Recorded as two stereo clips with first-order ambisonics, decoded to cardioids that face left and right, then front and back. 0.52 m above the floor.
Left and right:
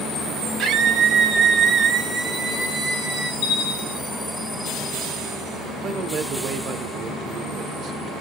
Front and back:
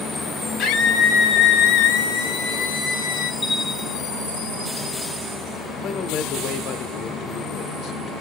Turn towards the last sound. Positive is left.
turn(degrees=-40)